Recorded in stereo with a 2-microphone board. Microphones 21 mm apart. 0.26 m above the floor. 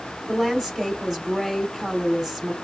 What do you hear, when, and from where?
0.3 s a woman speaking: 10° right (ahead or behind), 2 m